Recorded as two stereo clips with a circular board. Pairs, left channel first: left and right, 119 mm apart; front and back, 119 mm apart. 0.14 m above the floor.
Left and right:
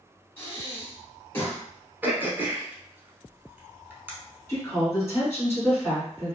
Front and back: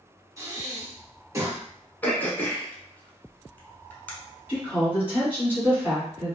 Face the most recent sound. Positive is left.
turn(degrees=130)